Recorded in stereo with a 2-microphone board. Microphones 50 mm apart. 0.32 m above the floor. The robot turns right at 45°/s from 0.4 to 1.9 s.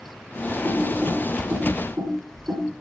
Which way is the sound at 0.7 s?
45° right (ahead or behind).